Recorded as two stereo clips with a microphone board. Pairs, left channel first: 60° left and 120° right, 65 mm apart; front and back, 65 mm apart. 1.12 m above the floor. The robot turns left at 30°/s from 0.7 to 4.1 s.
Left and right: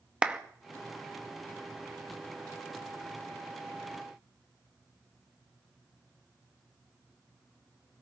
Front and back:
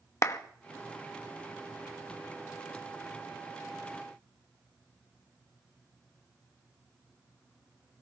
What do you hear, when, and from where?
0.2 s a clap: 45° right, 0.9 m